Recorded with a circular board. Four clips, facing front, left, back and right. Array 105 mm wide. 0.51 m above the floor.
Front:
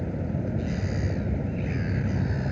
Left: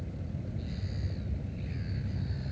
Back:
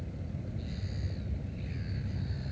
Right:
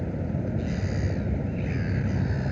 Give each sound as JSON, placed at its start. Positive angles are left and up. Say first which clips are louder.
{"t": 0.0, "sound": "a vehicle", "louder": "right 11 dB, front 12 dB", "azimuth_deg": -45}